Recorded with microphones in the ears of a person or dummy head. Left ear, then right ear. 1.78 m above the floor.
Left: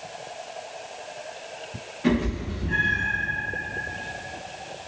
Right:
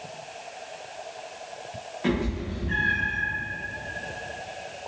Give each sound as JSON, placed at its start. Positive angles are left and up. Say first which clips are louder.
{"t": 2.0, "sound": "a cat meowing", "louder": "left 3 dB", "side_deg": -15, "distance_m": 1.1}